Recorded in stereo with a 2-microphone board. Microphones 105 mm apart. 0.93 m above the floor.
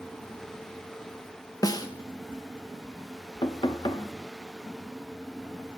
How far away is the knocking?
About 0.8 m.